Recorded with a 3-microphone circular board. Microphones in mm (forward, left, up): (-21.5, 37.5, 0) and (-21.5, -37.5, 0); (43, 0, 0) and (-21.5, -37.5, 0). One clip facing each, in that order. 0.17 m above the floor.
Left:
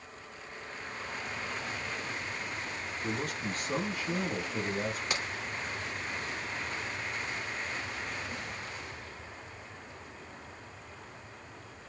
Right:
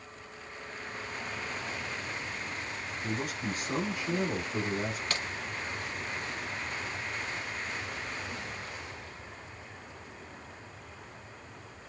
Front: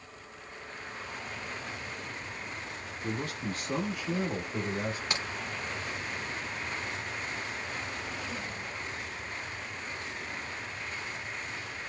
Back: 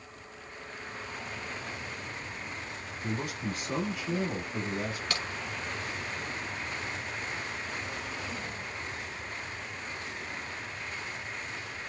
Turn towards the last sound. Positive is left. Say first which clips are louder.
# left 1 dB, even
turn(degrees=50)